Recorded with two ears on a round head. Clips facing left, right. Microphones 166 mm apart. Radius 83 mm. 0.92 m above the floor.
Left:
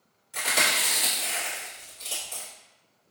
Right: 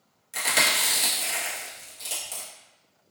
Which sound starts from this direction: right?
Chewing, at 0.3 s.